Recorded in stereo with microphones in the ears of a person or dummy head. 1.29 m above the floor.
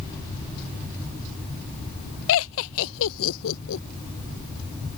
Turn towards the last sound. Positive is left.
turn(degrees=75)  # may be behind; listen again after turning